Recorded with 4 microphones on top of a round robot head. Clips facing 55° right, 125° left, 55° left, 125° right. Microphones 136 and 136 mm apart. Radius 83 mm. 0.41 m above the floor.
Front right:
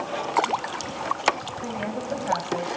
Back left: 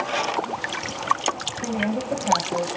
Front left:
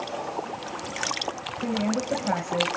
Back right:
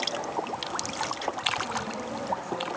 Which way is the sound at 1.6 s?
55° left.